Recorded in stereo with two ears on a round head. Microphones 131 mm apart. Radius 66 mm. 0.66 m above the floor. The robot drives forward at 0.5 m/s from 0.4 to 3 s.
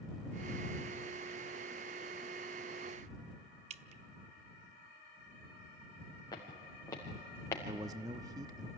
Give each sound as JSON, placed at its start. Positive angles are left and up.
{"t": 3.7, "sound": "dripping", "side_deg": -50, "distance_m": 0.6}
{"t": 6.3, "sound": "footsteps", "side_deg": 30, "distance_m": 4.0}
{"t": 7.7, "sound": "a man speaking", "side_deg": -25, "distance_m": 0.8}